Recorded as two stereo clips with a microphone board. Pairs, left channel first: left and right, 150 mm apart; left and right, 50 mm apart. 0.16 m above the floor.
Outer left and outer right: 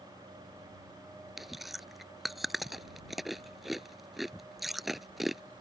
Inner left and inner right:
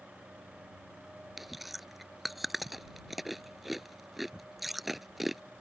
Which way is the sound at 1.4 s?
Centre (ahead or behind).